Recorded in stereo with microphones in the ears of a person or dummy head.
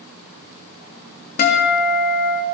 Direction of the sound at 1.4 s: 45° left (ahead or behind).